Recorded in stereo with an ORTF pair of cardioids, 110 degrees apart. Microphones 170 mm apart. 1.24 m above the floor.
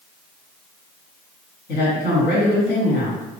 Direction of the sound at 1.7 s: 70° left.